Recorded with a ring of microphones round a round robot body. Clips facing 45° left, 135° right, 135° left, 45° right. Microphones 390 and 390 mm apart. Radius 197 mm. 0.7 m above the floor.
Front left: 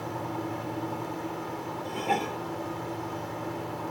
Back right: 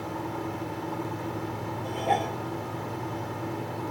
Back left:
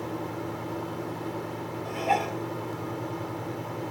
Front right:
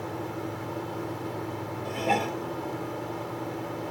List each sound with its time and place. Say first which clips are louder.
1.9 s dishes clattering: back right 1 dB, front right 2 dB; 30° right